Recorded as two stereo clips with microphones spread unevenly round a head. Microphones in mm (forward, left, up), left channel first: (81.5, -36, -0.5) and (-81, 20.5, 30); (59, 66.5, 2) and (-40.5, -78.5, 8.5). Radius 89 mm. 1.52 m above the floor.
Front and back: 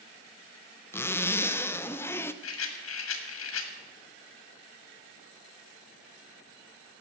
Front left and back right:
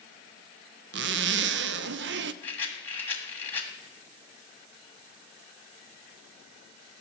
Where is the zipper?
100° right, 0.5 m.